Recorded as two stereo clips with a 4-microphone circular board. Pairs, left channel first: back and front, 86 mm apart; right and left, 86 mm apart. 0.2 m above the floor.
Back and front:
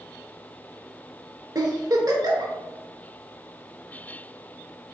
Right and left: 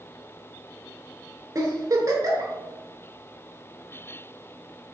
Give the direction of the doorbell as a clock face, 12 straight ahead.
I don't hear a doorbell.